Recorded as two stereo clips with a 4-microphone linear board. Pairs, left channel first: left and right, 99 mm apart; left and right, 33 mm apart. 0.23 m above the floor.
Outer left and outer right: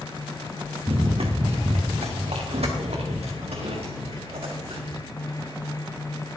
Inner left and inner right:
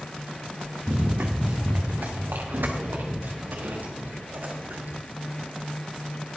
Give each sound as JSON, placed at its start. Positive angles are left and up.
{"t": 0.9, "sound": "running footsteps", "side_deg": -65, "distance_m": 1.6}